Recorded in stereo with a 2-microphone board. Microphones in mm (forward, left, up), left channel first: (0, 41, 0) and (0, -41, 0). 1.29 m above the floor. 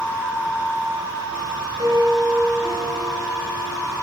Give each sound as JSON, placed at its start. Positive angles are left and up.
{"t": 1.8, "sound": "a piano", "side_deg": -85, "distance_m": 7.0}